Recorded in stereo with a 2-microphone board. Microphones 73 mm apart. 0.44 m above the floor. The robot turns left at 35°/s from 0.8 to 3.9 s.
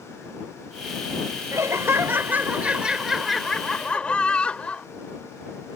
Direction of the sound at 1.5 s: 115° right.